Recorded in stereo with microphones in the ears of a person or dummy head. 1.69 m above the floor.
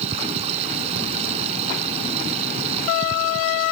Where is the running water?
35° right (ahead or behind).